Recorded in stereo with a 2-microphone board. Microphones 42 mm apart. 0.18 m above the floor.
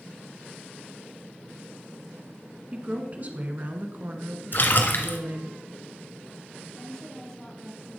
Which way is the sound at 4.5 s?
50° left (ahead or behind).